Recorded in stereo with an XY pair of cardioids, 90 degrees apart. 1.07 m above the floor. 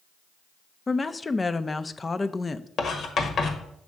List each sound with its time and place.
0.9 s a woman speaking: 25° left, 0.5 m
2.8 s writing: 65° left, 1.3 m